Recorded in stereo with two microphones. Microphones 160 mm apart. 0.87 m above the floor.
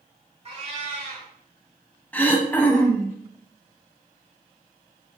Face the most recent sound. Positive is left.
turn(degrees=10)  # may be behind; listen again after turning